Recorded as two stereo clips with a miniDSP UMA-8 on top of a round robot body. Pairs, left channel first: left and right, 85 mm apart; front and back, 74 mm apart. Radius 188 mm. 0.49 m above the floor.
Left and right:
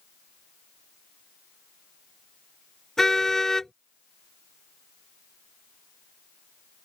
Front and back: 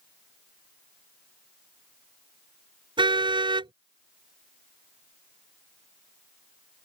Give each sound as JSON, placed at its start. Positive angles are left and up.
{"t": 3.0, "sound": "a car horn", "azimuth_deg": 175}